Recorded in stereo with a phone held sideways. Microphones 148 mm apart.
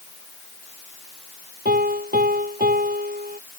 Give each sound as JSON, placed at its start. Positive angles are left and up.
{"t": 1.6, "sound": "a piano", "side_deg": -85}